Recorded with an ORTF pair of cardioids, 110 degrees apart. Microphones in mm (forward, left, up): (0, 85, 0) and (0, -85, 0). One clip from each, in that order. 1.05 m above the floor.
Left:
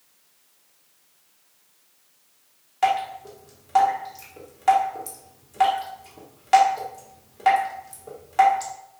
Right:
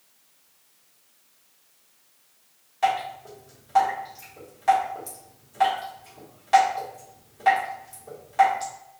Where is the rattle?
I don't hear a rattle.